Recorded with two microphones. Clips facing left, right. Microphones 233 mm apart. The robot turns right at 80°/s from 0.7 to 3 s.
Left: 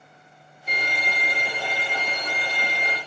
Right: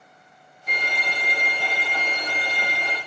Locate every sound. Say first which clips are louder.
0.7 s a violin: left 1 dB; 135° left, 1.5 m; by 3.0 s 45° right, 1.5 m